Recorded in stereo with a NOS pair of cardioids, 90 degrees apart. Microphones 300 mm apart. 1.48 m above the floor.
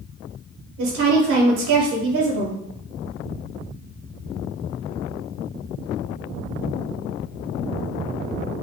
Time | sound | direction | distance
0.8 | a woman speaking | 55° right | 1.0 m